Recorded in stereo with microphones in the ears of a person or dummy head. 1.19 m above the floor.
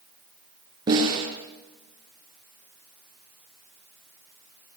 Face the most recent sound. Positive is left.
turn(degrees=-25)  # may be behind; listen again after turning